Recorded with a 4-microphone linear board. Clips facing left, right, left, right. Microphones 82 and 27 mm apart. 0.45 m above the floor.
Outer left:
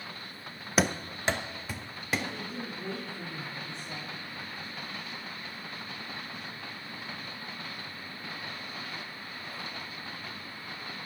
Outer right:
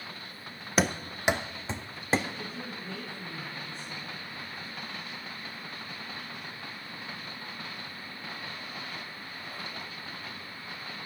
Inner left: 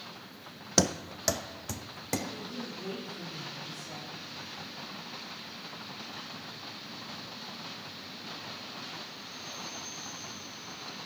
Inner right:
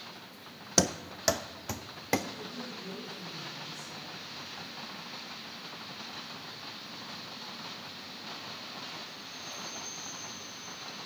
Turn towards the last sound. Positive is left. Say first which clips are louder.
# outer left 1 dB, inner left 1 dB
turn(degrees=75)  # may be behind; listen again after turning